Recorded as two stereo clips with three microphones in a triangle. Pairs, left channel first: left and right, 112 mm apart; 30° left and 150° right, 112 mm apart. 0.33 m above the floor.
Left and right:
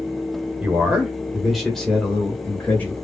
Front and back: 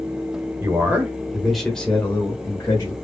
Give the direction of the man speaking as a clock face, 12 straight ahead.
5 o'clock.